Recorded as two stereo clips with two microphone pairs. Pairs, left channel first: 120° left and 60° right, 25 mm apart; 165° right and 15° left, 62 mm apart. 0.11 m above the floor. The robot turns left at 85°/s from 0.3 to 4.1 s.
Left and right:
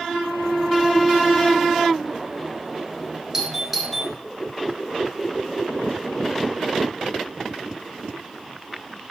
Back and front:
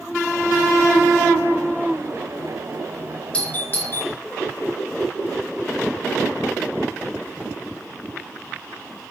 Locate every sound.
3.3 s a doorbell: 110° right, 1.7 m; by 4.1 s 175° right, 1.7 m